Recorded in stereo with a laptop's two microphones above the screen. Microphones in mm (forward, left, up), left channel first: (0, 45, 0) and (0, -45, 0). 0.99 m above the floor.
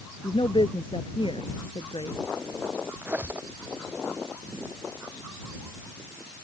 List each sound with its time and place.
0.2 s a woman speaking: 65° left (ahead or behind); by 2.2 s 70° left (ahead or behind)
3.0 s a squeak: 20° right (ahead or behind)